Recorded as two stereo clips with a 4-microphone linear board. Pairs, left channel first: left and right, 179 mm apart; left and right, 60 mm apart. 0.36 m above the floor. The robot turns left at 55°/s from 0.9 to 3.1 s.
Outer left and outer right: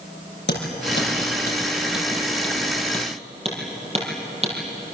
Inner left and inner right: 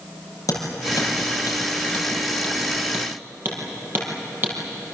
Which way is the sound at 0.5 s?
85° left.